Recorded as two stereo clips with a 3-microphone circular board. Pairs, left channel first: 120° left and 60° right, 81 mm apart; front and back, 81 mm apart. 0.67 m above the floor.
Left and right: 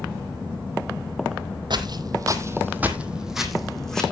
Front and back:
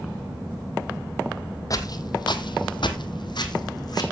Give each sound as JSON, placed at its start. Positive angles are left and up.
{"t": 1.7, "sound": "footsteps", "azimuth_deg": -45, "distance_m": 1.4}